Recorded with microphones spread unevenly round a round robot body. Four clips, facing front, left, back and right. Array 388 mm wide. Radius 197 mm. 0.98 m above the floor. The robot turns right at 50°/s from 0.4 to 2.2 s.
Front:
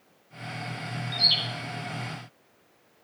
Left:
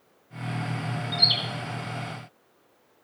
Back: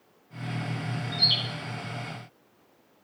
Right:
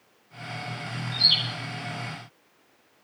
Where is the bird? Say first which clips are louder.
Left 2 dB, even; 60° left, 4 m; by 1.4 s 75° left, 4 m.